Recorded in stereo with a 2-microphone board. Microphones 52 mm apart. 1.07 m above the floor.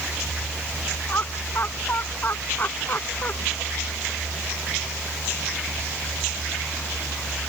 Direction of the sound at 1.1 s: 40° left (ahead or behind).